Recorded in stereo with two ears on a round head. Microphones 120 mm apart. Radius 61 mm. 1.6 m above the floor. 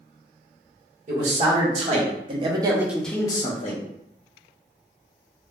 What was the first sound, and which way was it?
A man speaking, 55° right (ahead or behind).